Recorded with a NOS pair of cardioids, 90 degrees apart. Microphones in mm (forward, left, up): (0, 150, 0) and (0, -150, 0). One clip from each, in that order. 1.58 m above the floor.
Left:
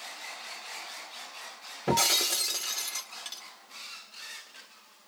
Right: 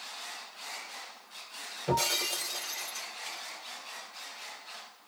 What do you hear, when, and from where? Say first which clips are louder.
1.9 s breaking glass: left 4 dB; 70° left, 1.9 m